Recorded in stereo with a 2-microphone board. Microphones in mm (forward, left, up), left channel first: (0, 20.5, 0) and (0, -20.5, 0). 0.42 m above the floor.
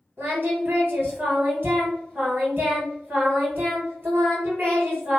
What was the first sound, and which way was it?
Singing, 55° right (ahead or behind).